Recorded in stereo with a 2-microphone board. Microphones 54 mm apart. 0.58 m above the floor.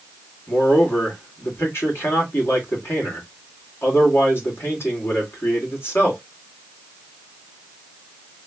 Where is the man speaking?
50° left (ahead or behind), 1.9 m.